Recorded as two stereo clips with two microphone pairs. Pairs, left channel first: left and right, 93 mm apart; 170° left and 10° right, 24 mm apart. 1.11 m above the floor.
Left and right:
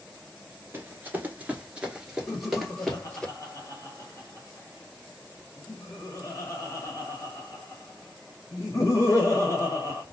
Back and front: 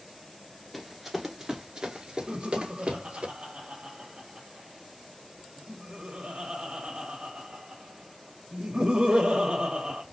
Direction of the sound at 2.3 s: 35° left.